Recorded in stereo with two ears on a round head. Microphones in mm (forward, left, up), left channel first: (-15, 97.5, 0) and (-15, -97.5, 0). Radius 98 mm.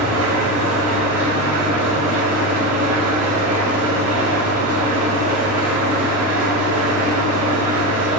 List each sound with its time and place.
0.0 s an engine running: 35° right (ahead or behind), 1.8 m